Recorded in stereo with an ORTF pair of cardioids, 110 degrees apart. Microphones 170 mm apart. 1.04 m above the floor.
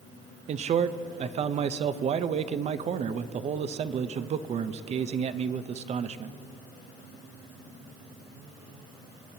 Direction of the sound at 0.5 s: 40° right.